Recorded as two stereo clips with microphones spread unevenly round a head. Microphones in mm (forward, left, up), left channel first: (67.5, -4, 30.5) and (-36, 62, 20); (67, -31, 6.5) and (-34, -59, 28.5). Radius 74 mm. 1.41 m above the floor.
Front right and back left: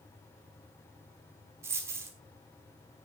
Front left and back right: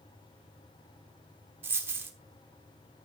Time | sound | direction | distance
1.6 | a dropped coin | 145° right | 1.1 m